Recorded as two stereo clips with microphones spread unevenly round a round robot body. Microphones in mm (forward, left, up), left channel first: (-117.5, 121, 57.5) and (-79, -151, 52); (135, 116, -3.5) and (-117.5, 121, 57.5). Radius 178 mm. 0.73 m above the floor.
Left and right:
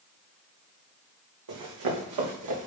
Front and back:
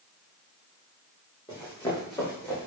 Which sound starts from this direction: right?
Running footsteps, at 1.5 s.